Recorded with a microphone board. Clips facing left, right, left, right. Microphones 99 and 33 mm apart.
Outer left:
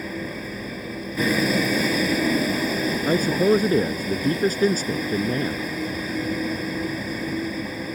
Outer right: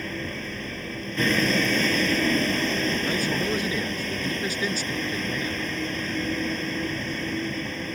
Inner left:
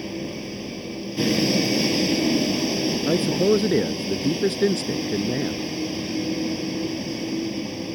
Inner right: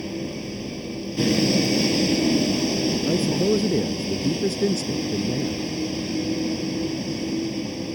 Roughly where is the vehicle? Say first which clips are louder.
Outer left 2 dB, inner right 1 dB; centre.